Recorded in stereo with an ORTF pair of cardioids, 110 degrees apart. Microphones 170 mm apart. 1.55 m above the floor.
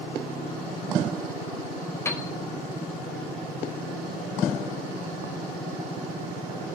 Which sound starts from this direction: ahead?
A piano, at 2.0 s.